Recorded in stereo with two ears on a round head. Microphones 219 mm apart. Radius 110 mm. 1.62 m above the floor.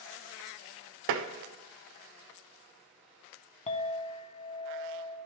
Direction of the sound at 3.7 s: 25° left (ahead or behind).